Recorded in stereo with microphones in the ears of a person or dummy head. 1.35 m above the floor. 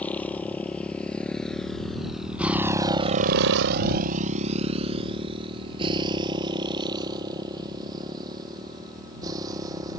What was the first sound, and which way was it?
A motorcycle, 10° left (ahead or behind).